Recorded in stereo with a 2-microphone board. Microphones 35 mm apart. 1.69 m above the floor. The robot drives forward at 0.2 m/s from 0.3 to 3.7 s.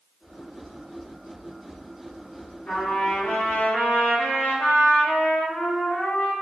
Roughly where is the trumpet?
Left.